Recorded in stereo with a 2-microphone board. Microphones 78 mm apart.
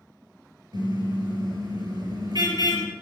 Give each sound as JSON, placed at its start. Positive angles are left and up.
{"t": 0.7, "sound": "a car horn", "side_deg": -70, "distance_m": 6.5}